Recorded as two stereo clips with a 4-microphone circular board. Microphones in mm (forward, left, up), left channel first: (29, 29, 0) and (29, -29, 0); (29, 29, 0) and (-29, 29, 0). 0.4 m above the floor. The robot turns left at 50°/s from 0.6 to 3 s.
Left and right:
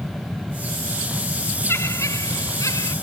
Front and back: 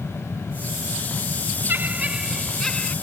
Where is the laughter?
130° left; by 2.9 s 65° left.